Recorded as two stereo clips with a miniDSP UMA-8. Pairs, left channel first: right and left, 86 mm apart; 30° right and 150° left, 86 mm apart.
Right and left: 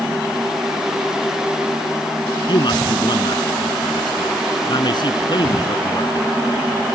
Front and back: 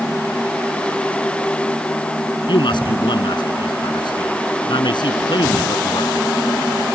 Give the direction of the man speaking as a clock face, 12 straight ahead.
2 o'clock.